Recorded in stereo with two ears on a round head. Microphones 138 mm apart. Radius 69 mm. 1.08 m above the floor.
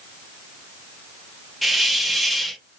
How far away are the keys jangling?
No keys jangling in this recording.